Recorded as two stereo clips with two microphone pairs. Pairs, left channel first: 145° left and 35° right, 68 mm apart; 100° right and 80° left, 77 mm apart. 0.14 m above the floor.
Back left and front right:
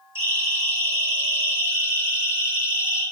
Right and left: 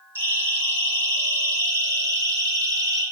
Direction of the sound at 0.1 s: 20° left.